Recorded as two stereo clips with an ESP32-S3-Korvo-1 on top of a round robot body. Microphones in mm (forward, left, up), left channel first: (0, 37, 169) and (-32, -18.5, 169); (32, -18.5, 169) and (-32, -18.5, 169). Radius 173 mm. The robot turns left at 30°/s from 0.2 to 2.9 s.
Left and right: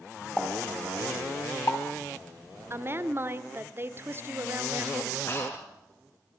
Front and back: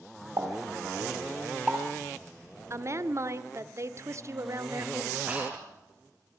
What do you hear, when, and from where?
0.4 s a pop: 150° left, 4.5 m; by 1.8 s 105° left, 4.5 m
2.7 s a woman speaking: 155° right, 1.5 m; by 5.2 s 160° right, 1.5 m
5.3 s breathing: 115° left, 6.5 m